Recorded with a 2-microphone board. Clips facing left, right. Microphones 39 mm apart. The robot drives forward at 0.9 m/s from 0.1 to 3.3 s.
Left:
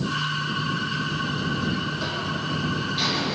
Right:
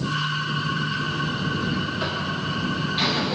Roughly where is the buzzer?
Right.